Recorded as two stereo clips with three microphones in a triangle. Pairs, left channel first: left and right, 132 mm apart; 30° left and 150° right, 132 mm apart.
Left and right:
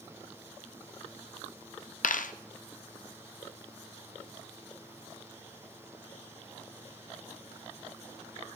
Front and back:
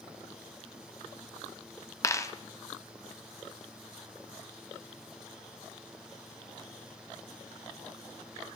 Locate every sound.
2.0 s a dropped coin: 95° left, 0.5 m